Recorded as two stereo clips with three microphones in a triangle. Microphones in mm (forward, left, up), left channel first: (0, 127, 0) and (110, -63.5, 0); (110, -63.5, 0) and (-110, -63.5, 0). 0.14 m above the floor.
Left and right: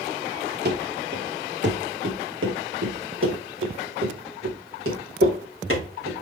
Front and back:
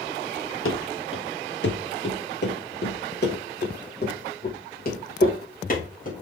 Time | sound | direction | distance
0.7 | running footsteps | 20° right | 2 m